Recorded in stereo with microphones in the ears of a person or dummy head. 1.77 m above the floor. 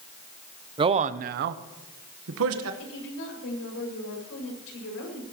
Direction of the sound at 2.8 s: 75° left (ahead or behind).